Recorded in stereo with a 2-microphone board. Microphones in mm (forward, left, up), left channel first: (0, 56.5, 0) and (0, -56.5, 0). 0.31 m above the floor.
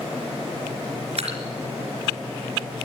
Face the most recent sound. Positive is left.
turn(degrees=-70)  # may be behind; listen again after turning